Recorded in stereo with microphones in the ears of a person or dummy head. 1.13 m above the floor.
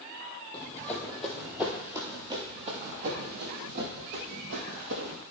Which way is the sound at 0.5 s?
15° left (ahead or behind).